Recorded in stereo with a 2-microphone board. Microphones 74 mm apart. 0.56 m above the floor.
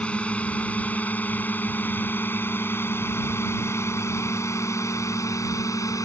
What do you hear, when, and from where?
0.0 s a drone: 15° left (ahead or behind); by 6.0 s 45° left (ahead or behind)